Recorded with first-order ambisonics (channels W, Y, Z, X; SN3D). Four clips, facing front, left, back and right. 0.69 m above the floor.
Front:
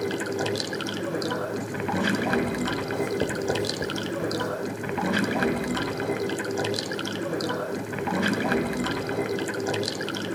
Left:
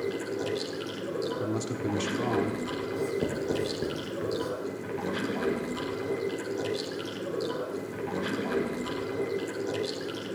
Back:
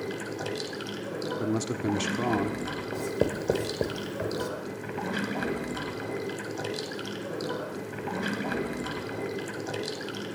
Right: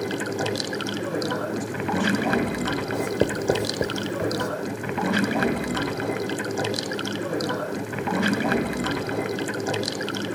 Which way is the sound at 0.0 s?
60° right.